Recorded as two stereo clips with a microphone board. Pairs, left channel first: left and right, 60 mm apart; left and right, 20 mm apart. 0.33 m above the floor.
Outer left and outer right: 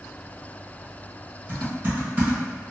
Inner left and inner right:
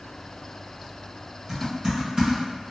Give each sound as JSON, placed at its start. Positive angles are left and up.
{"t": 1.5, "sound": "typing on a keyboard", "side_deg": -30, "distance_m": 1.9}